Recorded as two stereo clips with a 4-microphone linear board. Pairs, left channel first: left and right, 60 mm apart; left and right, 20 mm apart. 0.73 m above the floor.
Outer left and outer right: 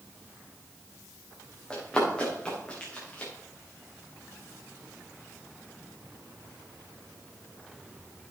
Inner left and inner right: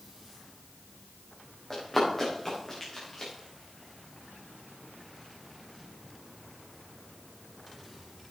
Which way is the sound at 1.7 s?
15° left (ahead or behind).